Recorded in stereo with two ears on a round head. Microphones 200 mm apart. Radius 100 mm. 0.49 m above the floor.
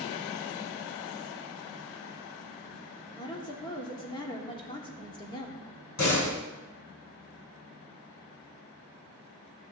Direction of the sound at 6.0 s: 80° left.